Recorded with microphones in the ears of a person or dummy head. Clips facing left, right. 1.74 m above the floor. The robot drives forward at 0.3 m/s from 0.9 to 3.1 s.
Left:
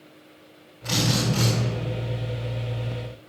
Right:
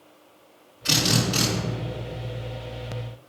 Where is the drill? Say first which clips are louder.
Even; 40° right (ahead or behind), 3.5 m.